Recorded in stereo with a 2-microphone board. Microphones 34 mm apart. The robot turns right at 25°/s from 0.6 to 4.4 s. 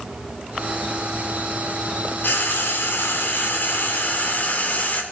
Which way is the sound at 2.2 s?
70° left.